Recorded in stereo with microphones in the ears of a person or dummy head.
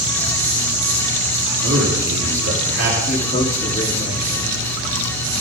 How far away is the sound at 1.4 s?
About 4.5 m.